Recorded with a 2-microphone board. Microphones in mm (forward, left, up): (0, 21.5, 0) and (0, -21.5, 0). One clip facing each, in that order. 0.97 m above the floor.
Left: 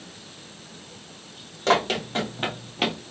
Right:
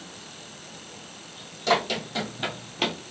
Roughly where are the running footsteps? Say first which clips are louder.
Left 2 dB; left.